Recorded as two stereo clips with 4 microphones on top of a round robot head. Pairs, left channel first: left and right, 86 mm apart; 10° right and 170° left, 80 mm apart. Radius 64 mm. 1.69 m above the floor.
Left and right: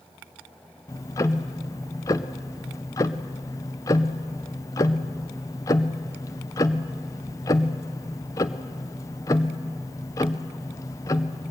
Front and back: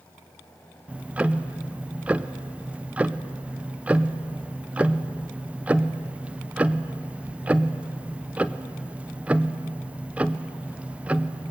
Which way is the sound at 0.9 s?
105° left.